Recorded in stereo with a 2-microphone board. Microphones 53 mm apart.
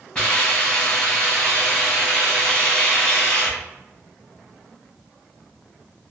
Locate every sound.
0.1 s a hiss: 25° left (ahead or behind), 1.7 m